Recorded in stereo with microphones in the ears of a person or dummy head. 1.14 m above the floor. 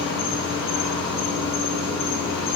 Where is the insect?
65° left (ahead or behind), 6.5 m.